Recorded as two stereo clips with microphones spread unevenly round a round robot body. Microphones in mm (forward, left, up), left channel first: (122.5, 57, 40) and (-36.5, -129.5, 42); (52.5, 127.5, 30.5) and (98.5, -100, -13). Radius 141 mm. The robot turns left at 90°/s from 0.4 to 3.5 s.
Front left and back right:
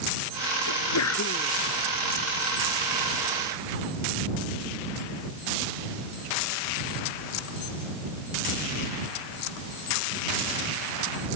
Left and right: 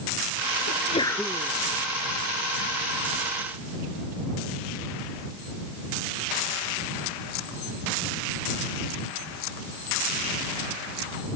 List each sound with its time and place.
0.7 s a sneeze: 60° left; by 1.5 s 15° right